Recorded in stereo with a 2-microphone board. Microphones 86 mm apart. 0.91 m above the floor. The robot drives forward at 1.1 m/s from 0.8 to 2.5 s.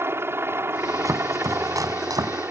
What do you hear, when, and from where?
0.0 s a helicopter: 30° right (ahead or behind); by 2.5 s 25° right (ahead or behind)
1.1 s chopping: 40° right (ahead or behind); by 2.4 s 50° right (ahead or behind)